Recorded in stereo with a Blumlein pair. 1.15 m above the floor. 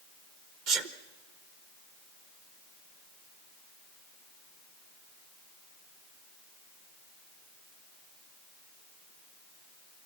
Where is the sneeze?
45° right, 1.2 m.